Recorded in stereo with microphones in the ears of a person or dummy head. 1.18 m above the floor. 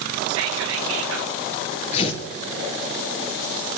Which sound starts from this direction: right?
Whispering, at 0.3 s.